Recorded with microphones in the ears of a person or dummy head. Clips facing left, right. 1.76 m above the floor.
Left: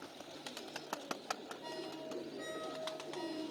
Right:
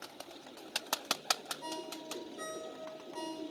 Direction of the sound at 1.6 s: 65° right (ahead or behind).